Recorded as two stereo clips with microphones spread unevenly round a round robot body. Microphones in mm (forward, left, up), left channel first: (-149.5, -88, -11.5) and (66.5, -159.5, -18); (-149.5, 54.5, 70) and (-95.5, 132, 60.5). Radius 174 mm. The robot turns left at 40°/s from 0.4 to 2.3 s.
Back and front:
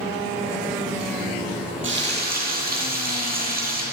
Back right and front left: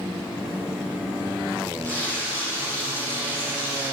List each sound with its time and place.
1.8 s frying: 50° right, 8 m; by 3.8 s 70° right, 8 m